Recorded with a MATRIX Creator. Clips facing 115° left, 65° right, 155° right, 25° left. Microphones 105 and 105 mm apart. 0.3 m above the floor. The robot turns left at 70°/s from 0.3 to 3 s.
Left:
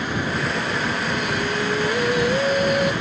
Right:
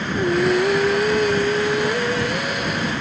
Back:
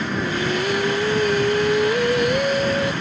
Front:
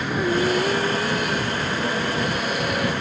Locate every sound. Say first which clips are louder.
0.1 s singing: right 11 dB, front 4 dB; 45° right; by 2.9 s 135° left